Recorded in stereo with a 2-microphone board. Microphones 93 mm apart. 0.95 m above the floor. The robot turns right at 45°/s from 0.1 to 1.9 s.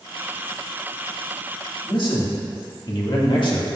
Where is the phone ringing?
No phone ringing in this recording.